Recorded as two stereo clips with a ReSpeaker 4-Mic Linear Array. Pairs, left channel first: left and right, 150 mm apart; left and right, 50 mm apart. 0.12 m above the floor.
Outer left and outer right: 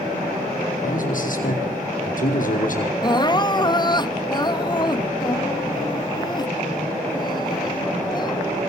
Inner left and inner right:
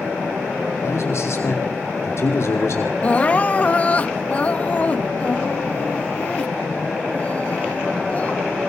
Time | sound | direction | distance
0.8 | a man speaking | 65° left (ahead or behind) | 4.5 m
3.0 | crying | 30° left (ahead or behind) | 0.7 m